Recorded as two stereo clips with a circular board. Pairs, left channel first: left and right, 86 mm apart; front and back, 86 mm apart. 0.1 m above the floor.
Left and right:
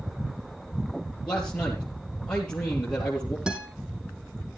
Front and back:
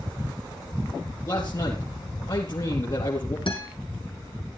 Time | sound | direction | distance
1.3 | a man speaking | 15° left | 3 m
3.5 | a guitar | 10° right | 3.5 m